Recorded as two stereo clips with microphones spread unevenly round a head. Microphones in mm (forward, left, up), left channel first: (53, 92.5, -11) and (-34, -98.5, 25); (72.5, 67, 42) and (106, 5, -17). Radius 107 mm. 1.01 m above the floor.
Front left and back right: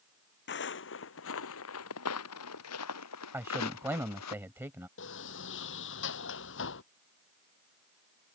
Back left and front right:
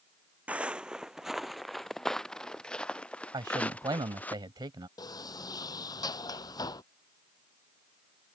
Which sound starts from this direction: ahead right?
A man speaking, at 3.3 s.